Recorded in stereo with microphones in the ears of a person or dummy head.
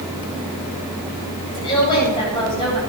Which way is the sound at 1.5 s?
25° left (ahead or behind).